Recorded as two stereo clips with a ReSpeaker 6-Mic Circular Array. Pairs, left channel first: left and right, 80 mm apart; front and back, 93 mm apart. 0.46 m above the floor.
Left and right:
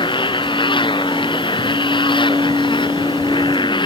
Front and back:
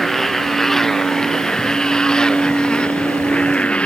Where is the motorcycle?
90° left; by 3.9 s 80° left.